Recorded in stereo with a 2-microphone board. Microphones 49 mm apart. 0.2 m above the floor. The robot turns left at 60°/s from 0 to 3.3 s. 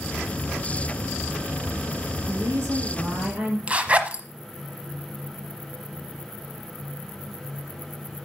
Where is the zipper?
25° right (ahead or behind), 0.8 m.